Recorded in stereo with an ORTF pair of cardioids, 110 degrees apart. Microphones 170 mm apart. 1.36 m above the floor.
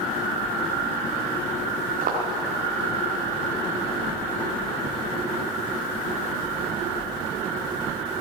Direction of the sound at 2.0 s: 60° right.